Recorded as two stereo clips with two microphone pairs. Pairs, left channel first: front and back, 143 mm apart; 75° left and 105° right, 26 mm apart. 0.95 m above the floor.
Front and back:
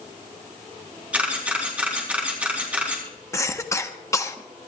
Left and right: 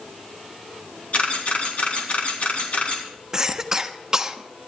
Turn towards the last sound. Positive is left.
turn(degrees=-60)